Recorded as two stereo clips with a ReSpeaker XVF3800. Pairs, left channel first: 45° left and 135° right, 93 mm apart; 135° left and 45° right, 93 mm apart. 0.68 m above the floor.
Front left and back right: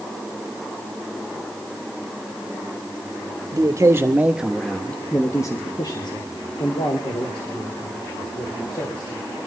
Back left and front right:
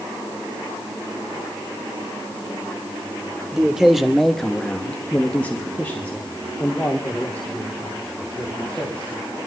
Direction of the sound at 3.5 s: 125° right.